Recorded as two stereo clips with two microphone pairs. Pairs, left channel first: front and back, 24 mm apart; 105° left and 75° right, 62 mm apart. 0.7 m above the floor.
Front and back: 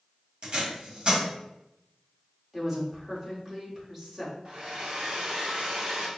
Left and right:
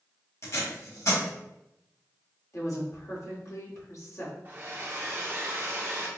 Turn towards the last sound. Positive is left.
turn(degrees=-130)